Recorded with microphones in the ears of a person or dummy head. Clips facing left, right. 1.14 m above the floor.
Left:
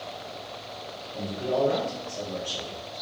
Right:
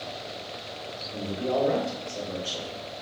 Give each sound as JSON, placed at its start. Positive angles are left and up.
{"t": 1.1, "sound": "a man speaking", "side_deg": -75, "distance_m": 1.4}